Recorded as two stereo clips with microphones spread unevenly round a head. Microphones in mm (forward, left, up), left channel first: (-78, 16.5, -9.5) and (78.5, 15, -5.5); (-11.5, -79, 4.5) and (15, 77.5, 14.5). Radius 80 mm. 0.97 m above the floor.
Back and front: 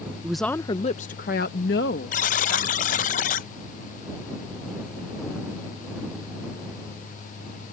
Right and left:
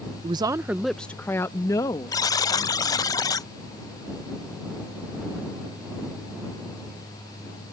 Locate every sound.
0.2 s a woman speaking: 70° left; by 3.1 s 160° right
2.1 s a buzzer: 160° right